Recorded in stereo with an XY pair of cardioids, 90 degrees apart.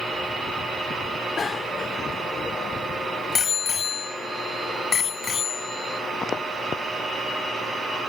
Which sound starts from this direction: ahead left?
A bicycle bell, at 1.4 s.